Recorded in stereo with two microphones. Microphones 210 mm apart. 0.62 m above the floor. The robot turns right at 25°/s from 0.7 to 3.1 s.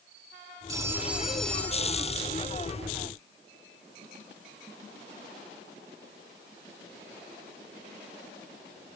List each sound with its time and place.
0.7 s a phone ringing: 15° right, 3 m; by 2.7 s 35° left, 3 m